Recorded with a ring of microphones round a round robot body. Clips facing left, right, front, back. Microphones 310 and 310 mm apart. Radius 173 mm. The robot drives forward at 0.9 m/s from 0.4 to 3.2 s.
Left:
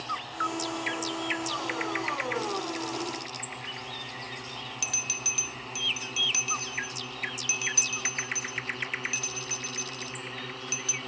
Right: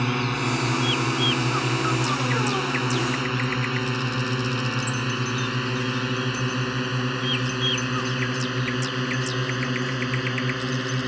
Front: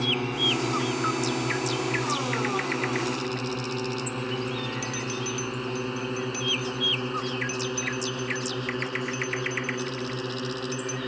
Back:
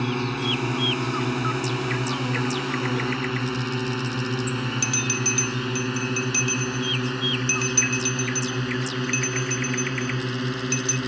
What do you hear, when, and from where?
0.0 s a drone: 110° right; by 11.1 s 120° right
4.8 s a bell: 140° left